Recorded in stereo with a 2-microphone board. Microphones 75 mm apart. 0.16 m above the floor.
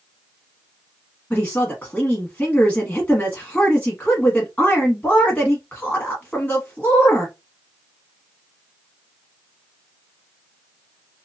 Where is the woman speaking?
20° left (ahead or behind), 1.0 m.